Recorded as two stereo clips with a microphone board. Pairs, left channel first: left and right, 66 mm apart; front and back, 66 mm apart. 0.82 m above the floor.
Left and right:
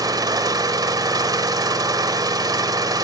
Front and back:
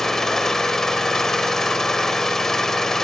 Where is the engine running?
85° right, 2 m.